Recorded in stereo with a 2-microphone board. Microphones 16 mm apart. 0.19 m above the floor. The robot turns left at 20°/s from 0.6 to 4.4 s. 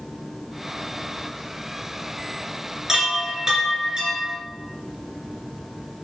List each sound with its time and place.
2.9 s a chime: 20° right (ahead or behind), 3 m; by 4.4 s 50° right (ahead or behind), 3 m